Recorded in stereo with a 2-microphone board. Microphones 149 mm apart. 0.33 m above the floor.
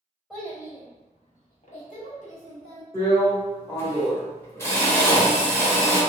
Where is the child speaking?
Centre (ahead or behind), 0.8 m; by 2.8 s 55° left (ahead or behind), 1.9 m.